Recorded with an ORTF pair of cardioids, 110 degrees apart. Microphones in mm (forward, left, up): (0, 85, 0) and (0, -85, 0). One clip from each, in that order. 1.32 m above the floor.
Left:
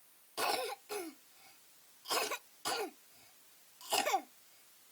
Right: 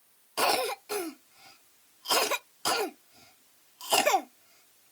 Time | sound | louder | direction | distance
0.4 | a cough | right 9 dB | 50° right | ?